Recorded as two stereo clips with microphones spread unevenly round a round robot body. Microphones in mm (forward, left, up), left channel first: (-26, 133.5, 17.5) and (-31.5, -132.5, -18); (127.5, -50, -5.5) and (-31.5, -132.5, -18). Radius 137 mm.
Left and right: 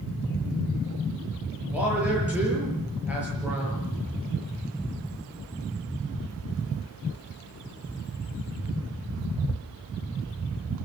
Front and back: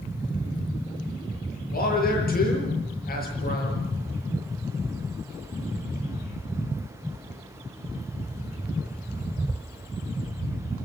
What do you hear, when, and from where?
1.7 s a man speaking: 5° right, 7.5 m